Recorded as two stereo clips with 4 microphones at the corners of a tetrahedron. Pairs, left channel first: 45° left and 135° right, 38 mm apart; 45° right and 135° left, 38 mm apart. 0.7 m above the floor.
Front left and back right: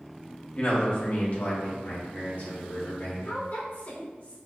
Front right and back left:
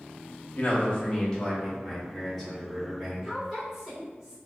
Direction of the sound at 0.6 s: Straight ahead.